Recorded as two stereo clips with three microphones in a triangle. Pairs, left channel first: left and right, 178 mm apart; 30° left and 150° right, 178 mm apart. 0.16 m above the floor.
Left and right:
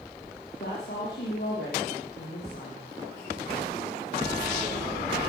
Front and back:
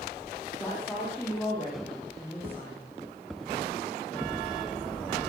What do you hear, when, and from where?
0.6 s a woman speaking: 110° left, 5.5 m